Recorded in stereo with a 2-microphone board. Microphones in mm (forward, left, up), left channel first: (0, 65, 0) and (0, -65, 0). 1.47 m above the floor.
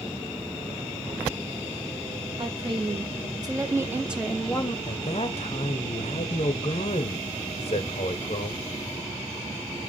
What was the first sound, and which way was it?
A woman speaking, 45° right (ahead or behind).